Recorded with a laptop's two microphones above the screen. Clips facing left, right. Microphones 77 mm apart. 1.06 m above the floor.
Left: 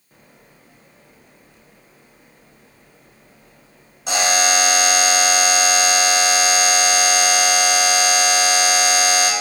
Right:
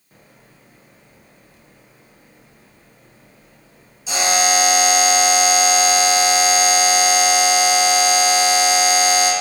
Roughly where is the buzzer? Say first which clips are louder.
Even; left.